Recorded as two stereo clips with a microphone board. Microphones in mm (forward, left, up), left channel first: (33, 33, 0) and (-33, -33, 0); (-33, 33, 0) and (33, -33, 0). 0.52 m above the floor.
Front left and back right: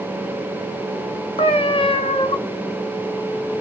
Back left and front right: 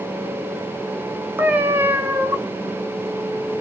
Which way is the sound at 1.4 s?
25° left.